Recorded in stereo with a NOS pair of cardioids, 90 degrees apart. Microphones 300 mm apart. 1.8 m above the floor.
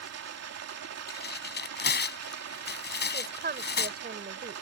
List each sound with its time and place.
0.0 s running water: 60° right
1.1 s tearing paper: 35° left
3.1 s a woman speaking: 35° right